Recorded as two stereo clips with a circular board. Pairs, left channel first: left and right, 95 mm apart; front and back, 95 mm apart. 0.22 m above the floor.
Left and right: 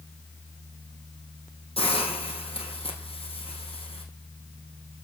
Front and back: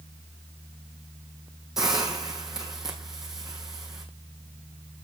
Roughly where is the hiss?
Left.